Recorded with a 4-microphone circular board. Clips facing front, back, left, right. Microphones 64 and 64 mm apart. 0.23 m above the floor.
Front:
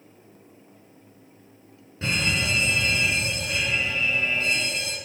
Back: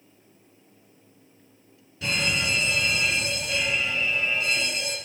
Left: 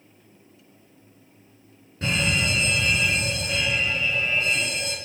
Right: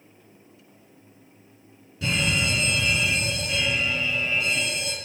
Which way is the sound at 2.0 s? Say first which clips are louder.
Front 1 dB, left 1 dB; 50° left.